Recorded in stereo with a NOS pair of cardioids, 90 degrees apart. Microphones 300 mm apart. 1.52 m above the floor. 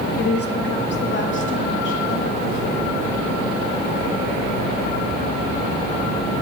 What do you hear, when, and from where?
0.2 s a woman speaking: 35° left, 1.4 m; by 2.9 s 45° left, 5 m